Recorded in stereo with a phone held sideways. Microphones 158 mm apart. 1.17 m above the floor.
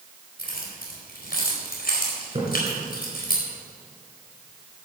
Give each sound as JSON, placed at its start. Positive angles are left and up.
{"t": 0.4, "sound": "keys jangling", "side_deg": 75, "distance_m": 4.5}
{"t": 2.4, "sound": "a splash", "side_deg": -35, "distance_m": 4.0}